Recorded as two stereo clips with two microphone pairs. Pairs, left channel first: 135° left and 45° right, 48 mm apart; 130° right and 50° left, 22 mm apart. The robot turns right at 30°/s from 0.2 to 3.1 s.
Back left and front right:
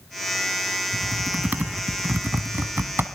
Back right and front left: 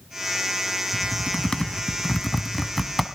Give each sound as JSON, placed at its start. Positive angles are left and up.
{"t": 0.9, "sound": "typing on a keyboard", "azimuth_deg": -105, "distance_m": 1.3}